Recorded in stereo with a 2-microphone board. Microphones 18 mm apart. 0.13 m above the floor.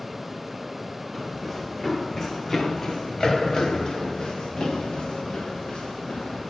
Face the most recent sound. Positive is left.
turn(degrees=55)  # may be behind; listen again after turning